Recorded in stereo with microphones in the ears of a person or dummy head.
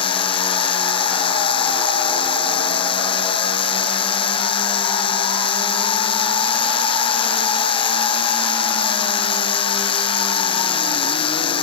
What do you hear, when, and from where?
0.0 s a machine running: 20° left (ahead or behind)